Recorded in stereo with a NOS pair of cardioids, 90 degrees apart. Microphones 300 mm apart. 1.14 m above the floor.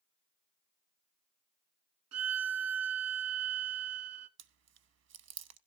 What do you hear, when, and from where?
2.1 s a violin: 70° right, 1.2 m
4.4 s chewing: 60° right, 0.9 m